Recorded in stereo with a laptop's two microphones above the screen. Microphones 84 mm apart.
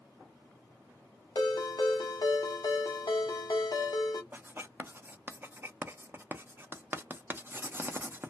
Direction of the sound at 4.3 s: 25° right (ahead or behind).